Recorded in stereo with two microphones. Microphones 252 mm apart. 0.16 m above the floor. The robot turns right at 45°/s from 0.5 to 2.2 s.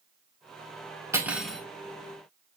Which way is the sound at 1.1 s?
10° right (ahead or behind).